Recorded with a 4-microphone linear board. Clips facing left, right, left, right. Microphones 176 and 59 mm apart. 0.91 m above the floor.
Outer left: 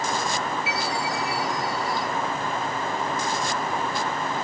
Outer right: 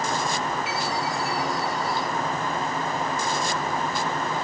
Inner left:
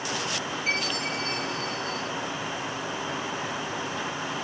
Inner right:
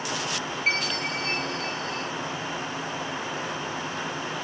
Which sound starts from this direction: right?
A chime, at 0.7 s.